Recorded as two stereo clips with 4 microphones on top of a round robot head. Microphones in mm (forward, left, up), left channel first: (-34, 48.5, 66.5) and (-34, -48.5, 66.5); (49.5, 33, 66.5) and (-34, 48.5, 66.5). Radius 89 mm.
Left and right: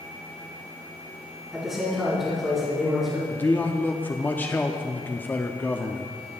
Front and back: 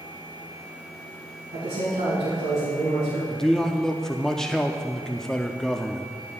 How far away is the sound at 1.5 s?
About 4 m.